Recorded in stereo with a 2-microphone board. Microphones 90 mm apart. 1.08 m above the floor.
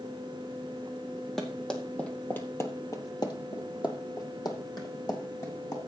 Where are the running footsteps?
Centre (ahead or behind), 2.5 m; by 5.8 s 40° left (ahead or behind), 4 m.